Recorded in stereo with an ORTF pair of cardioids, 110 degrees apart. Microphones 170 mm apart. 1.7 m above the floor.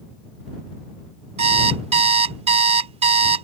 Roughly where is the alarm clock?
Ahead right.